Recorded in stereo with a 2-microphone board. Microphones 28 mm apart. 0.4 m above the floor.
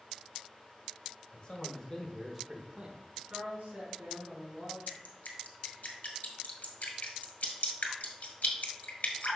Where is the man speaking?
45° left (ahead or behind), 1.6 m; by 3.2 s 45° right (ahead or behind), 1.3 m.